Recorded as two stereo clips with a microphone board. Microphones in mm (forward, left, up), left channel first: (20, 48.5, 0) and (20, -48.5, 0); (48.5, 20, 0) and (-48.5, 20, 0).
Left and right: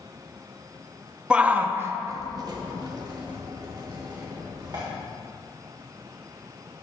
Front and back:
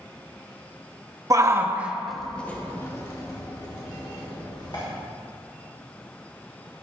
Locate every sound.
1.3 s a shout: 160° right, 0.8 m; by 4.8 s 40° right, 2 m